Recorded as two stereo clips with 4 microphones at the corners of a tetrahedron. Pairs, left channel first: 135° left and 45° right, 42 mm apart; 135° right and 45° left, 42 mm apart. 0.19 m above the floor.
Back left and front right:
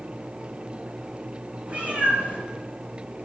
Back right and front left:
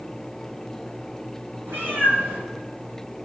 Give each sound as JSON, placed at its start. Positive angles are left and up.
{"t": 1.7, "sound": "a cat meowing", "azimuth_deg": 15, "distance_m": 1.5}